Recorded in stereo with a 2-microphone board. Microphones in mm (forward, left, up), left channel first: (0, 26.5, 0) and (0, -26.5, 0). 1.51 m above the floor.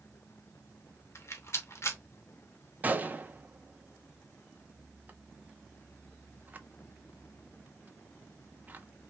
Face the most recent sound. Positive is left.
turn(degrees=-30)  # may be behind; listen again after turning